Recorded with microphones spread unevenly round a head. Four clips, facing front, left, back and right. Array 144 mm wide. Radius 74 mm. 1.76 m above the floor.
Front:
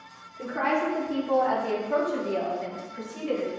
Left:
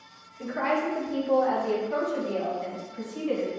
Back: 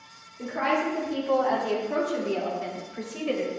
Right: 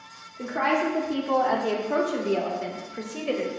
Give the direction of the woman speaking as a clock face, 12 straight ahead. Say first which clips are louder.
Right 2 dB, even; 2 o'clock.